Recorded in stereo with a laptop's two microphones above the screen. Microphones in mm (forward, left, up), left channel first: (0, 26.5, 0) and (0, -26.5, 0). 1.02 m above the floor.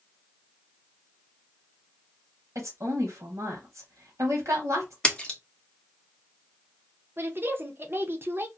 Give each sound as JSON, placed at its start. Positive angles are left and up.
{"t": 2.5, "sound": "a woman speaking", "side_deg": -70, "distance_m": 0.8}
{"t": 5.0, "sound": "a splash", "side_deg": 20, "distance_m": 0.6}
{"t": 7.2, "sound": "a woman speaking", "side_deg": -45, "distance_m": 0.5}